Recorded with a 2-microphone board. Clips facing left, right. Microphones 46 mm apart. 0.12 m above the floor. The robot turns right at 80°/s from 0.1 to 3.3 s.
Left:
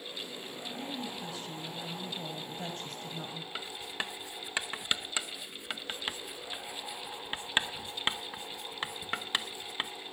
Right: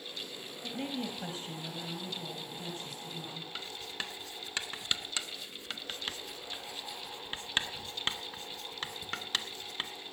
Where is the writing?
15° left (ahead or behind), 0.6 m.